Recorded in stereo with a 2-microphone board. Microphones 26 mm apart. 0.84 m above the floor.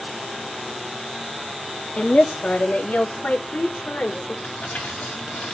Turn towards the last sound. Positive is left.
turn(degrees=80)